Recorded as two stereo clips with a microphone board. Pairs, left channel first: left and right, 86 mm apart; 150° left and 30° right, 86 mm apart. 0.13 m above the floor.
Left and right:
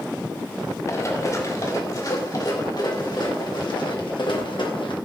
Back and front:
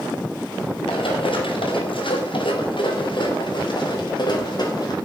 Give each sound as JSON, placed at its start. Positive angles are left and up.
{"t": 0.9, "sound": "running footsteps", "azimuth_deg": 140, "distance_m": 4.0}